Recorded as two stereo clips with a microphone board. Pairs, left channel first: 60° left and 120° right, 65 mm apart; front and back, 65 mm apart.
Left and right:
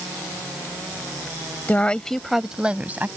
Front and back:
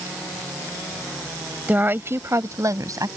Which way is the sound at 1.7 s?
120° left.